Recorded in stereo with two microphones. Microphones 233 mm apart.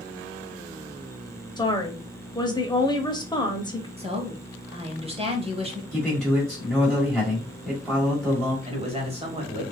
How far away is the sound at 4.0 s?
About 1.1 m.